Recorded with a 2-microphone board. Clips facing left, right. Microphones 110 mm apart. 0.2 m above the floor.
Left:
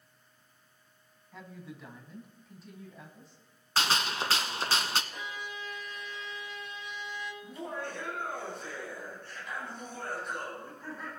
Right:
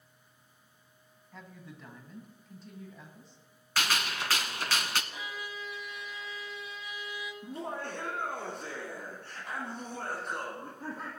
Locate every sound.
1.3 s a woman speaking: 5° left (ahead or behind), 1.7 m; by 3.4 s centre (ahead or behind), 1.7 m
3.8 s a gunshot: 30° left (ahead or behind), 0.7 m
5.1 s a violin: 5° right (ahead or behind), 1.5 m
7.4 s laughter: 60° right (ahead or behind), 2.5 m